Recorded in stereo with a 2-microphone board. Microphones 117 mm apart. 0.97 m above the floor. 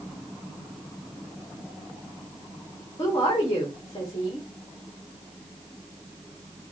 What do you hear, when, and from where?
3.0 s a woman speaking: 40° left (ahead or behind), 1.7 m